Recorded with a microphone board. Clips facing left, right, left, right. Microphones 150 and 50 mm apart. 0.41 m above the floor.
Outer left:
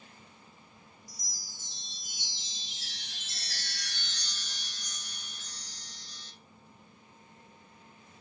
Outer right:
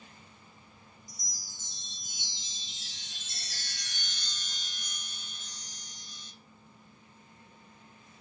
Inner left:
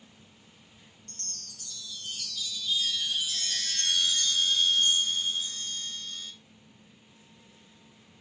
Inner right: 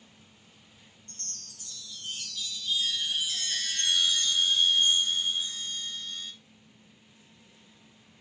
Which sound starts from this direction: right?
A chime, at 1.1 s.